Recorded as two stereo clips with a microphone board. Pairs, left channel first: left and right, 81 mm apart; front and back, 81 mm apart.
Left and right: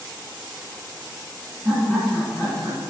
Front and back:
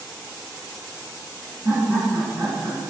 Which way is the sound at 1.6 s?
170° right.